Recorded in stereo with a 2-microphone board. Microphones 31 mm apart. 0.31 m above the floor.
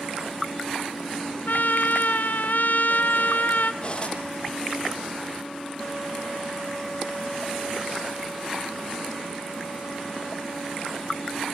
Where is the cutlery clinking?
30° left (ahead or behind), 7.5 m.